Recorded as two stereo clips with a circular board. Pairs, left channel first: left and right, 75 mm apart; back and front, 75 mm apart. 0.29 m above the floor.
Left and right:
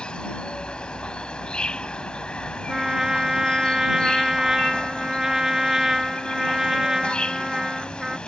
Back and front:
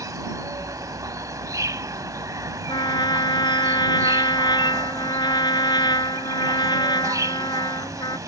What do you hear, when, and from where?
0.0 s an insect: 15° left
2.7 s a trumpet: 170° right